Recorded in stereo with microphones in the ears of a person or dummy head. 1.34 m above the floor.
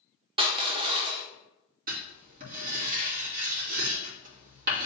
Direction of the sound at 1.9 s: 45° right (ahead or behind).